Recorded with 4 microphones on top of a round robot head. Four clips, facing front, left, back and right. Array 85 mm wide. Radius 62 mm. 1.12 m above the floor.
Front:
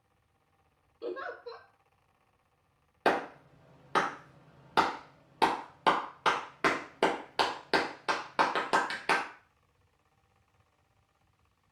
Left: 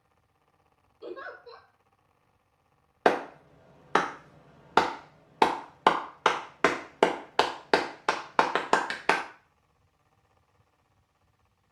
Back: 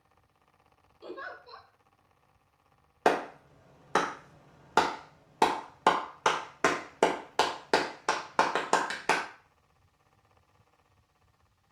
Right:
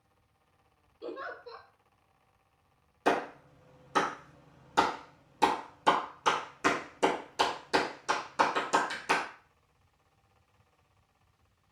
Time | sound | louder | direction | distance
1.0 | a giggle | even, front 4 dB | 15° right | 1.2 m
3.0 | a clap | left 4 dB, back 2 dB | 105° left | 0.5 m